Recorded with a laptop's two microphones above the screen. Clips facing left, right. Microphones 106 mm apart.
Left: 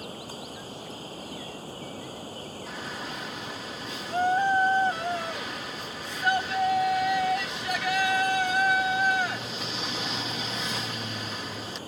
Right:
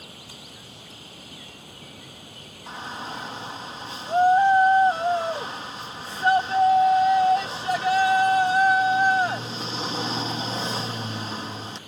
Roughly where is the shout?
Right.